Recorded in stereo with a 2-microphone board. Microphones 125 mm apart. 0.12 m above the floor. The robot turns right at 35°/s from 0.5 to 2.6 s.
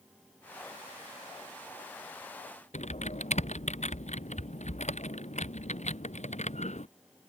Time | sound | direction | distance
2.7 | typing on a keyboard | 65° left (ahead or behind) | ?